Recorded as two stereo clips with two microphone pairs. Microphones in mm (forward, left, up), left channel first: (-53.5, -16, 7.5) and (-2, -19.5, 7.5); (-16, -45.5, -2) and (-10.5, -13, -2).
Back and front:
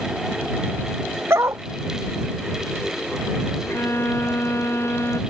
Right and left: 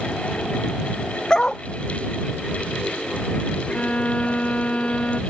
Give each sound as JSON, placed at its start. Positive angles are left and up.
{"t": 1.3, "sound": "a dog barking", "azimuth_deg": -30}
{"t": 3.7, "sound": "a violin", "azimuth_deg": -150}